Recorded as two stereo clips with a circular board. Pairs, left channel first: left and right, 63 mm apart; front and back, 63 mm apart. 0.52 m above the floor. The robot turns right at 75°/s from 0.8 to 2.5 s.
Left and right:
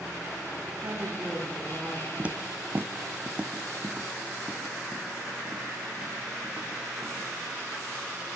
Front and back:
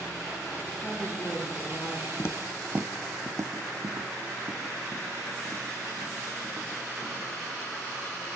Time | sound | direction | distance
0.8 | a woman speaking | 70° right | 8.5 m
2.2 | footsteps | 35° right | 0.8 m